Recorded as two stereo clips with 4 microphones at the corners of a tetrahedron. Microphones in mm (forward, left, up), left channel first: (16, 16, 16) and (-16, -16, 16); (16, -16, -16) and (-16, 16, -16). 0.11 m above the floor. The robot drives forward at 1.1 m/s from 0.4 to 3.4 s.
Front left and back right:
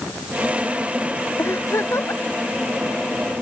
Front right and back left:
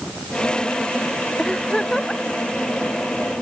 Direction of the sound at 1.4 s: 30° left.